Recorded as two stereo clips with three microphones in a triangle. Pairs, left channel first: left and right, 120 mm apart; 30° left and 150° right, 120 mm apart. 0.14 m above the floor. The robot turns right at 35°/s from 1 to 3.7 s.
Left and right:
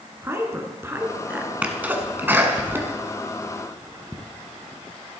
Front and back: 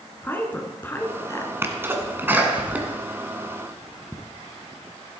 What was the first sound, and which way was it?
A woman speaking, 35° right.